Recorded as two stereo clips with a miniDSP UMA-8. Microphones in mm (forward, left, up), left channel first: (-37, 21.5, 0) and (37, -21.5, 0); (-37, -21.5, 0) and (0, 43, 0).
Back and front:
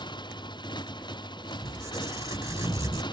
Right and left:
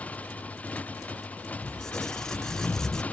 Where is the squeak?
40° right.